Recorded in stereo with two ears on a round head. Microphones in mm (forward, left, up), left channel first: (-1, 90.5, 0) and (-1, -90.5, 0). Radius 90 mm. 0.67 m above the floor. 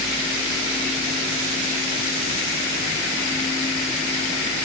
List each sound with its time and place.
Only background noise.